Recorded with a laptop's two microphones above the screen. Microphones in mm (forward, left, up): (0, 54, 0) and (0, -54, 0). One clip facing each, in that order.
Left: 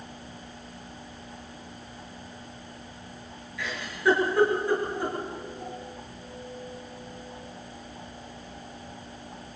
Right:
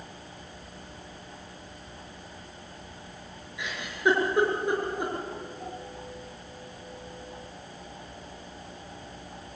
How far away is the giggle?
About 5 m.